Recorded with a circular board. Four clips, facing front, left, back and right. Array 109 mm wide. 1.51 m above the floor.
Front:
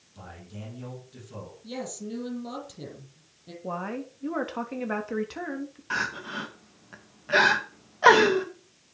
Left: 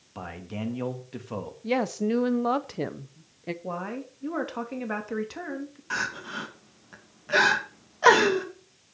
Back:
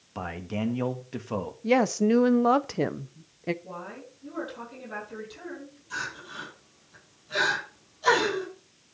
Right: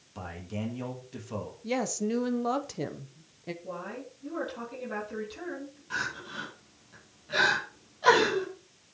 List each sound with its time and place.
0.1 s a man speaking: 165° left, 2.0 m
1.6 s a woman speaking: 165° left, 0.8 m
3.6 s a woman speaking: 40° left, 3 m
5.9 s crying: 35° left, 2.5 m